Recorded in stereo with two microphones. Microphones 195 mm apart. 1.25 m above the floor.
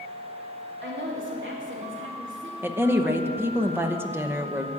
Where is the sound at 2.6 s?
10° right (ahead or behind), 0.9 m.